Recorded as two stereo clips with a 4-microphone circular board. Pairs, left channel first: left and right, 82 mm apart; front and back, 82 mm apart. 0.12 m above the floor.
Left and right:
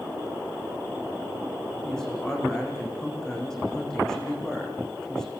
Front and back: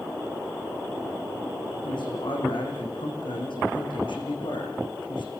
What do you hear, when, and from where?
1.8 s a man speaking: 10° left, 7.5 m